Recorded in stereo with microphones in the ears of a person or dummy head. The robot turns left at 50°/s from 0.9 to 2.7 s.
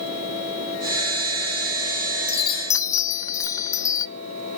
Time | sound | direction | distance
2.3 | a chime | 35° left (ahead or behind) | 0.7 m